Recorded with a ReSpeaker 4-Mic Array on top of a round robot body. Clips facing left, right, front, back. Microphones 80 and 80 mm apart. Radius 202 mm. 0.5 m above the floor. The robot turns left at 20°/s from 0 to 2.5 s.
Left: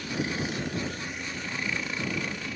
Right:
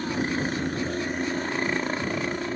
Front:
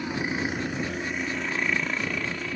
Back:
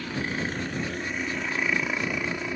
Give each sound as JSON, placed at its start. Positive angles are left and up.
{"t": 0.0, "sound": "a helicopter", "azimuth_deg": -65}